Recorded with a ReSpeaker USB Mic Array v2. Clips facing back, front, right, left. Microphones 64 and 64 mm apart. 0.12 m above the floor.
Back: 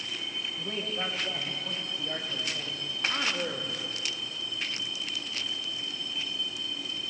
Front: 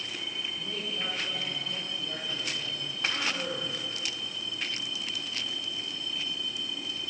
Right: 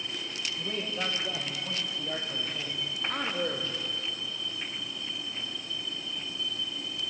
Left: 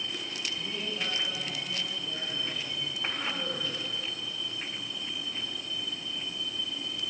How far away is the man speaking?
About 6.5 m.